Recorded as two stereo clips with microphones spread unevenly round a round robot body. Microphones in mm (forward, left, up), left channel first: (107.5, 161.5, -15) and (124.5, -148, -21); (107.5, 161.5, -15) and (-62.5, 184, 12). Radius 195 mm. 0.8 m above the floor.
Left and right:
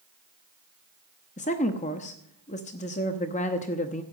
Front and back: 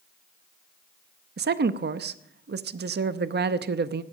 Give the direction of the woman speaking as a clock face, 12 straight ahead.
7 o'clock.